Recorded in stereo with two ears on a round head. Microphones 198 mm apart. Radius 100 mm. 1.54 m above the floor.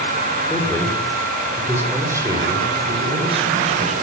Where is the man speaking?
10° left (ahead or behind), 5.5 m; by 3.9 s 30° right (ahead or behind), 7 m.